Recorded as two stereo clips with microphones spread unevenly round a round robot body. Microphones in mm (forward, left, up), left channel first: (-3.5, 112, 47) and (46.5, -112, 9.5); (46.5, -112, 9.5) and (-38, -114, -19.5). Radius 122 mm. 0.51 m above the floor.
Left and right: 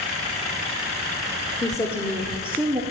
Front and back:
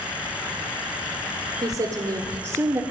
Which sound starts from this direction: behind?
A woman speaking, at 1.6 s.